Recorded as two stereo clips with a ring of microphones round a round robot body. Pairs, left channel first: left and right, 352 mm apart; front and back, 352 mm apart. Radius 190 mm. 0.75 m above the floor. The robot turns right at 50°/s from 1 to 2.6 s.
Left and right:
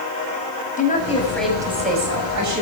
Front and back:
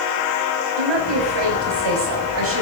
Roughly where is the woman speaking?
Behind.